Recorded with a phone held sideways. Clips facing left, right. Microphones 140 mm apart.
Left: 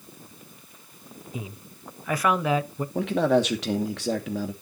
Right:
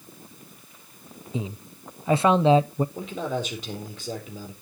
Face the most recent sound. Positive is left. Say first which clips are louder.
# left 8 dB
turn(degrees=80)